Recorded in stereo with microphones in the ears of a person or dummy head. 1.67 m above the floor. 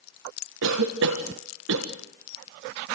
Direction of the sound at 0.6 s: 75° right (ahead or behind).